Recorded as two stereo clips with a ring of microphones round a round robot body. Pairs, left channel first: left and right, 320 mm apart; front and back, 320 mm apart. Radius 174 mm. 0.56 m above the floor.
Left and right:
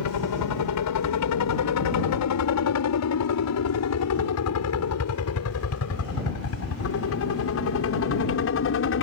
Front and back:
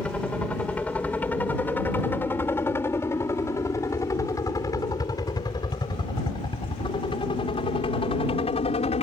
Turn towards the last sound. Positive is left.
turn(degrees=65)